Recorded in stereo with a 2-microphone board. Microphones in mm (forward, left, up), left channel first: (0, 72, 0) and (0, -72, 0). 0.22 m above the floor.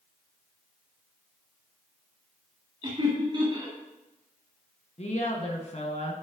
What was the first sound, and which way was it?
Laughter, 35° right (ahead or behind).